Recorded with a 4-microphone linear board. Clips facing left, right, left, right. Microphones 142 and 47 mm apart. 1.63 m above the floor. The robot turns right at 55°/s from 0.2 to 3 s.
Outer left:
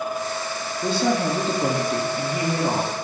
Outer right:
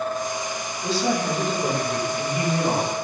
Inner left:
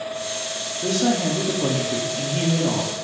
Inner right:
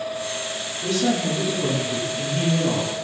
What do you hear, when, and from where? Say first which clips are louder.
0.8 s a woman speaking: outer left 2 dB, inner left 1 dB; 55° left, 2.5 m; by 2.9 s 170° left, 2.5 m